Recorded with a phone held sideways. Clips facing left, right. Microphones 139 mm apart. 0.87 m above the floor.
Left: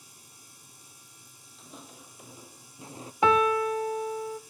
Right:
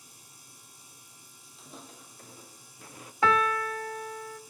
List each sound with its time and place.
1.6 s footsteps: centre (ahead or behind), 1.5 m; by 3.1 s 30° left (ahead or behind), 1.1 m
3.2 s a piano: 20° left (ahead or behind), 1.1 m